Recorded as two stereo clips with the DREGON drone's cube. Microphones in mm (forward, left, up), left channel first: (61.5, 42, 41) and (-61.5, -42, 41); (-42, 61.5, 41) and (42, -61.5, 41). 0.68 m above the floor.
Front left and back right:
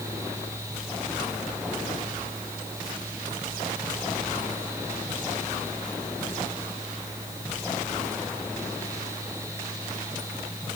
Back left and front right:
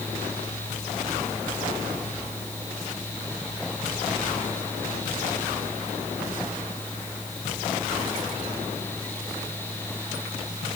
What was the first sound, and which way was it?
Only background noise.